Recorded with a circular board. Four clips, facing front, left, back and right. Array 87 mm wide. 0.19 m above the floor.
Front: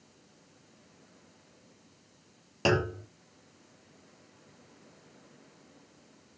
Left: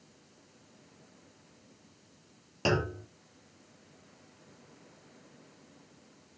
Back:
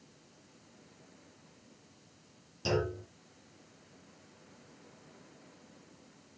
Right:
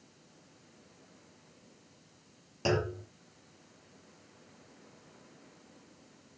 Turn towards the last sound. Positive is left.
turn(degrees=15)